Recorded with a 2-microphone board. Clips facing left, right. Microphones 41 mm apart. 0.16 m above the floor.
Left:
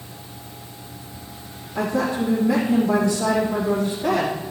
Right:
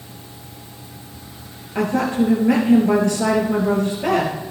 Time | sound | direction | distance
1.8 | a woman speaking | 60° right (ahead or behind) | 3 m